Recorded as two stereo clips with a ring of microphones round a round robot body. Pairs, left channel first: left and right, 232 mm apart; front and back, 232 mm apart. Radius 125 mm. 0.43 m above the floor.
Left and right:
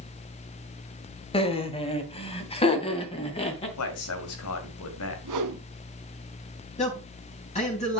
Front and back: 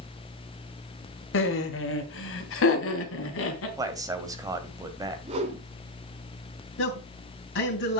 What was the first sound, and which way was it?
Laughter, 25° left.